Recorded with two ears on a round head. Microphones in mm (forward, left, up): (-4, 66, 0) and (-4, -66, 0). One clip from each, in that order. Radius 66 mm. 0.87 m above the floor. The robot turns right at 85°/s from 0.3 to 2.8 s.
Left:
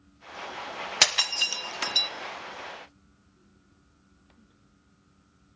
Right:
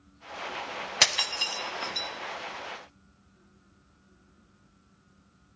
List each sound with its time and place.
1.0 s breaking glass: 10° left (ahead or behind), 1.0 m; by 2.1 s 50° left (ahead or behind), 1.0 m